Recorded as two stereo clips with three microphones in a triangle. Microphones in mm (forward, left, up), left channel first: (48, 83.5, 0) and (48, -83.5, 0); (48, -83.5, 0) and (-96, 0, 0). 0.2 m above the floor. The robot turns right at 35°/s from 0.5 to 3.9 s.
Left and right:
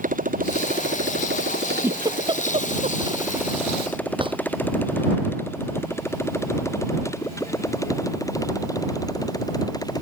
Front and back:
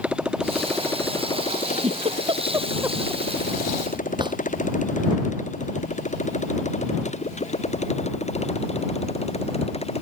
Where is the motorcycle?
125° right; by 10.0 s 25° left.